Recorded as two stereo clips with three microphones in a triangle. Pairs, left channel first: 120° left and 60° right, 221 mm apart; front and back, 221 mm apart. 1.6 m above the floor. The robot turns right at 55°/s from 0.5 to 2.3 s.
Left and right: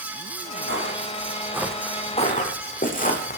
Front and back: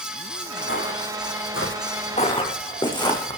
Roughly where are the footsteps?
Ahead right.